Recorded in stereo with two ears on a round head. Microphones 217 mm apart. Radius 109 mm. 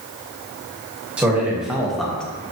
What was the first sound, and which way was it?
A man speaking, 5° right (ahead or behind).